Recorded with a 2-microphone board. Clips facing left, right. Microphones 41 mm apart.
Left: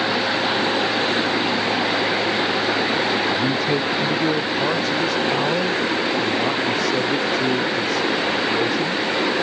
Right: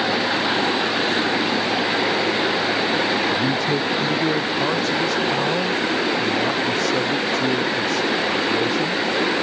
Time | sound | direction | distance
3.3 | a man speaking | 5° left (ahead or behind) | ?